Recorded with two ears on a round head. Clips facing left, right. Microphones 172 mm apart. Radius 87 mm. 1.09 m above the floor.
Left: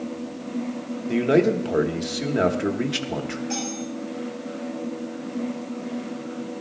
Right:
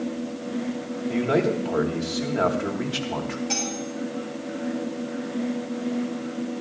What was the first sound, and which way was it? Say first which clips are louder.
A man speaking: left 4 dB; 30° left (ahead or behind).